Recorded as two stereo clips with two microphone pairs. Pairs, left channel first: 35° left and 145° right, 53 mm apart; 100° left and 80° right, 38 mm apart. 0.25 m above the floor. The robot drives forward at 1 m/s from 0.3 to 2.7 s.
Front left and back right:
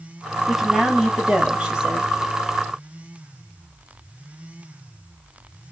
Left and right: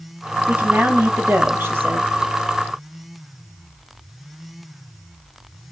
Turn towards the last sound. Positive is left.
turn(degrees=-80)